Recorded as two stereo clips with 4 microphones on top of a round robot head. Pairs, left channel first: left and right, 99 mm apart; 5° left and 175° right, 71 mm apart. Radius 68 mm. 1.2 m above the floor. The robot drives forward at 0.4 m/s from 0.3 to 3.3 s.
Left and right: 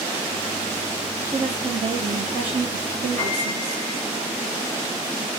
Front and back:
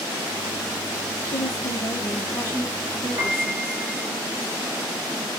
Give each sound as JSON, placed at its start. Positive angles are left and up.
{"t": 1.3, "sound": "a woman speaking", "azimuth_deg": -35, "distance_m": 0.9}
{"t": 3.2, "sound": "a piano", "azimuth_deg": 170, "distance_m": 1.4}